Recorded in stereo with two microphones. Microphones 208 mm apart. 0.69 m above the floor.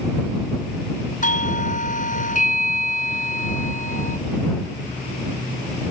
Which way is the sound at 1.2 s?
40° left (ahead or behind).